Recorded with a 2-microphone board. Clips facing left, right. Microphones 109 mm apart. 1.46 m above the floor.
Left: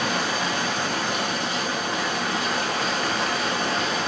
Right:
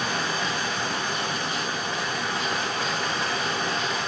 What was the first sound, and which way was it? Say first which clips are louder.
Running water: left 3 dB; 80° left.